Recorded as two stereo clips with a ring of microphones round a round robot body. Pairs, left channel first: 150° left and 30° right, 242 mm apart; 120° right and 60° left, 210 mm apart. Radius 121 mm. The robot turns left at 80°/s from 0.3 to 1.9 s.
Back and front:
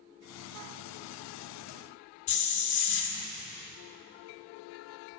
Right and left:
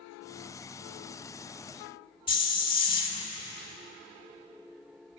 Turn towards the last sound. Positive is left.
turn(degrees=170)